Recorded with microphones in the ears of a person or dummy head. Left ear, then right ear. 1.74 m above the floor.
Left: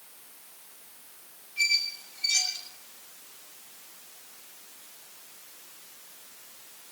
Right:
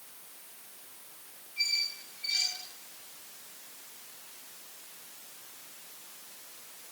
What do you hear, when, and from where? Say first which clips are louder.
1.6 s a squeak: left 5 dB; 15° left (ahead or behind), 6.5 m